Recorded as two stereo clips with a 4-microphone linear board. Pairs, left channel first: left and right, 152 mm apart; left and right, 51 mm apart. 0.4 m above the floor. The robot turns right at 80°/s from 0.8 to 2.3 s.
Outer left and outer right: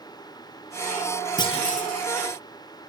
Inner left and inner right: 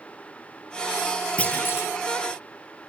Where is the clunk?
25° left, 2 m; by 1.9 s 70° left, 2 m.